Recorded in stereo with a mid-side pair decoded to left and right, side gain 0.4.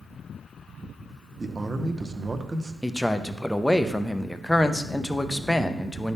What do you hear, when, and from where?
1.4 s a man speaking: 25° right, 0.9 m
2.8 s a man speaking: 5° left, 0.7 m